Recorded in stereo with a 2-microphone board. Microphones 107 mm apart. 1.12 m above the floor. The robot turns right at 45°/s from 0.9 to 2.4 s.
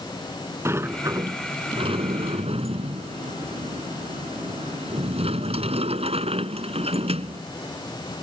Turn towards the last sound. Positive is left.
turn(degrees=-85)